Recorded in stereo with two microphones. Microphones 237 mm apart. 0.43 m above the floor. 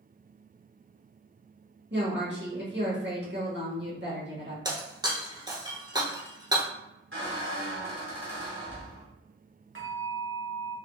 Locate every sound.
1.9 s a woman speaking: 50° right (ahead or behind), 1.4 m
4.7 s breaking glass: 20° right (ahead or behind), 0.9 m
7.1 s a squeak: 55° right (ahead or behind), 1.4 m
9.8 s a bell: 60° right (ahead or behind), 0.9 m